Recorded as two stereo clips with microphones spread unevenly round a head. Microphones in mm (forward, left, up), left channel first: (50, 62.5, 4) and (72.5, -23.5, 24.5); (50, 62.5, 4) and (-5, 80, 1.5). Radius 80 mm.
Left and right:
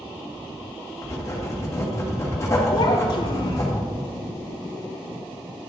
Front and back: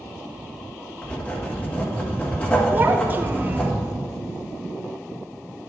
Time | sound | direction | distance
1.0 | writing | 45° left | 1.9 m
2.7 | a child speaking | 130° left | 0.7 m